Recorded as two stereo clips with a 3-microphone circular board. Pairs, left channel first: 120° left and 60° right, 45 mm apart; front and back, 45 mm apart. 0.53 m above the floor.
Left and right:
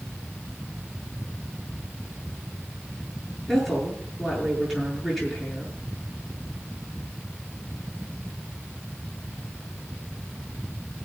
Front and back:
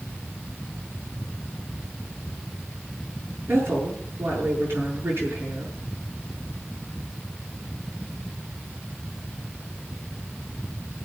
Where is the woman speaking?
155° right, 9 m.